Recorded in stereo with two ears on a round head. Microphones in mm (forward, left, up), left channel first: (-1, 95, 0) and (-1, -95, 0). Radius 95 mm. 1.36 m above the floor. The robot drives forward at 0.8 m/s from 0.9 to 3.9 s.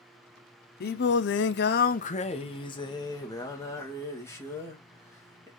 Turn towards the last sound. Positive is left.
turn(degrees=15)  # may be behind; listen again after turning